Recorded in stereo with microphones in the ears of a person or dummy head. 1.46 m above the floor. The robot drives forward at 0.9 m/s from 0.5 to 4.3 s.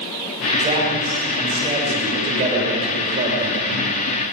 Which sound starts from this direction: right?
A man speaking, at 0.6 s.